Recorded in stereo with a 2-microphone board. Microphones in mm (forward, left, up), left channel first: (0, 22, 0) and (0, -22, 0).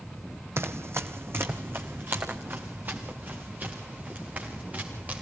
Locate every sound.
0.6 s running footsteps: 75° right (ahead or behind), 1.2 m; by 5.2 s 35° right (ahead or behind), 6 m